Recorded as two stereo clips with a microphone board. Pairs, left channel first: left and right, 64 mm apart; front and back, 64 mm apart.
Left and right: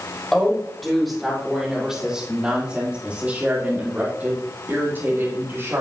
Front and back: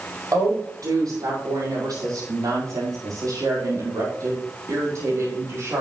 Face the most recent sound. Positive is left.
turn(degrees=-140)